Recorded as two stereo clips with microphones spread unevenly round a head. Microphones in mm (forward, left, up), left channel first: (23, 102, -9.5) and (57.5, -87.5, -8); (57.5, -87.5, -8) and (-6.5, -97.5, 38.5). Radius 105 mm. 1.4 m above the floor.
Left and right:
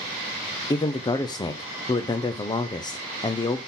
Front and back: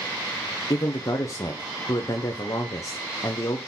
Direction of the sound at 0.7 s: 30° left.